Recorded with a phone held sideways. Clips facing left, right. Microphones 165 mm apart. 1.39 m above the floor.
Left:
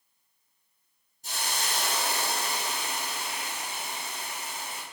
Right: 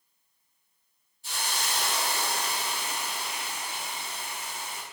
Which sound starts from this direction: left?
A hiss, at 1.2 s.